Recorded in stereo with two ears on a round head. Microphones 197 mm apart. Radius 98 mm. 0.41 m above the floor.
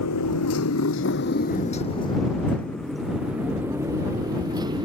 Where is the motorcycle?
90° left; by 4.9 s 20° right (ahead or behind).